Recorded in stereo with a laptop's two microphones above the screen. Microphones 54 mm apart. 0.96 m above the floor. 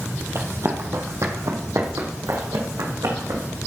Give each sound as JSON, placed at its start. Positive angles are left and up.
{"t": 0.3, "sound": "running footsteps", "side_deg": -50, "distance_m": 2.0}